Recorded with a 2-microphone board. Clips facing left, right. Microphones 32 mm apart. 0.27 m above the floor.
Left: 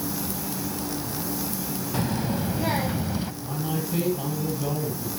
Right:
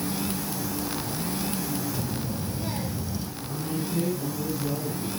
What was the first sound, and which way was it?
A child speaking, 50° left (ahead or behind).